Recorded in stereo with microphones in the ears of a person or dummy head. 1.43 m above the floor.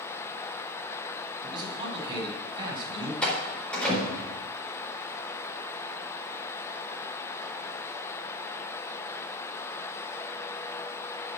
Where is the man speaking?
25° right (ahead or behind), 4 m.